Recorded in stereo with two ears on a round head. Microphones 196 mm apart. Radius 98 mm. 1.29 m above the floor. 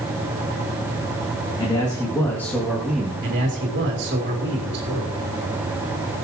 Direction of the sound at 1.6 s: 20° left (ahead or behind).